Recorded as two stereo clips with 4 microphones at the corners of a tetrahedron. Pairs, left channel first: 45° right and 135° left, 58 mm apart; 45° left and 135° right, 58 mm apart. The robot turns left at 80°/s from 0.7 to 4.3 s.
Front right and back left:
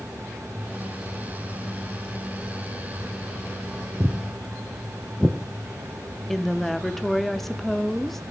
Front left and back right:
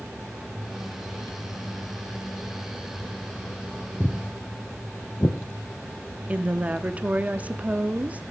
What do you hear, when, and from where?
4.0 s footsteps: 95° left, 0.6 m; by 5.4 s 45° left, 1.2 m
6.3 s a woman speaking: 120° right, 0.6 m